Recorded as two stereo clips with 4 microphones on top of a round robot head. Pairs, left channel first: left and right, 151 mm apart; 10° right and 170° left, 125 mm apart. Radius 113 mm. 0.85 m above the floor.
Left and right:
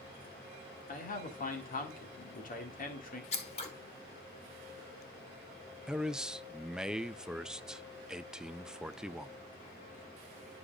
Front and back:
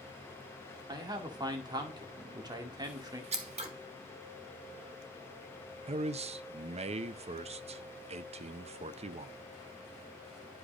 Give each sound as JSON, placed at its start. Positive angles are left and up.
{"t": 0.9, "sound": "a man speaking", "azimuth_deg": 115, "distance_m": 2.0}
{"t": 3.3, "sound": "scissors", "azimuth_deg": 140, "distance_m": 1.4}
{"t": 5.9, "sound": "a man speaking", "azimuth_deg": -175, "distance_m": 0.5}